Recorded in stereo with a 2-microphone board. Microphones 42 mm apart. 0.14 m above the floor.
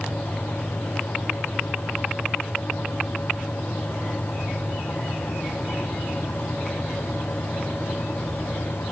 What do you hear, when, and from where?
Only background noise.